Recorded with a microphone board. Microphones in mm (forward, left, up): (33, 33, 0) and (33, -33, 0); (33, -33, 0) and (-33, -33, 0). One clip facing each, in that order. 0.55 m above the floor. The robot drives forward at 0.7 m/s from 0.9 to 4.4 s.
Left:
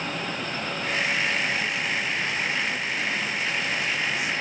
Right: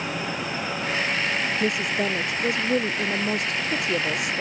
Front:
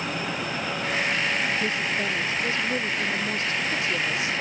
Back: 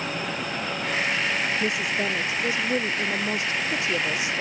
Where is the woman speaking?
105° right; by 4.4 s 110° right.